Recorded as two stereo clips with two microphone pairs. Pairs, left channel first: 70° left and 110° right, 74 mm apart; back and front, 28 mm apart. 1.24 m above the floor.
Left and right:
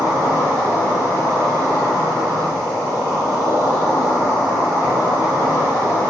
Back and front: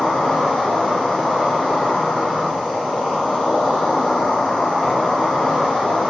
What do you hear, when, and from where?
0.0 s an insect: 95° left, 1.3 m